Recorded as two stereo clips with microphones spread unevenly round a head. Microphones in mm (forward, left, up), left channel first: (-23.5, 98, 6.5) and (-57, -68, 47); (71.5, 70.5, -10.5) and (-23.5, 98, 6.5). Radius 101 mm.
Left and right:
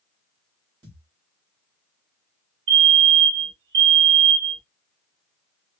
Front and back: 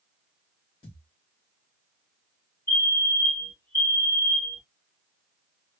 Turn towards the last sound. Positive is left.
turn(degrees=-80)